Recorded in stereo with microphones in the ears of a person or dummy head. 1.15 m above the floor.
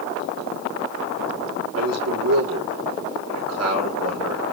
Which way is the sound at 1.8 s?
85° right.